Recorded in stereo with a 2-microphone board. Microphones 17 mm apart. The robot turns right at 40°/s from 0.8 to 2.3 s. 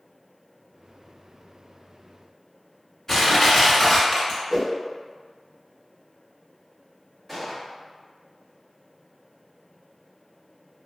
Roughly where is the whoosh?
Right.